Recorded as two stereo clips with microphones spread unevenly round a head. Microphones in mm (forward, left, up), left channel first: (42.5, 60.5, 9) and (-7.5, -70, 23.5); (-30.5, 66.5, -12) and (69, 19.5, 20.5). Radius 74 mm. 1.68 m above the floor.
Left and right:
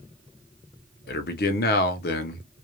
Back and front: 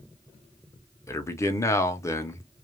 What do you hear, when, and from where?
1.1 s a man speaking: 90° left, 0.8 m